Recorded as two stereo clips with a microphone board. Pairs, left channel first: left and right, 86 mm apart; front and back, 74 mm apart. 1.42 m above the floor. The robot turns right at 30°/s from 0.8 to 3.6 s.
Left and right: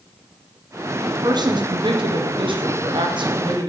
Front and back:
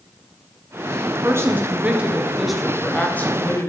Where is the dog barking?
I don't hear a dog barking.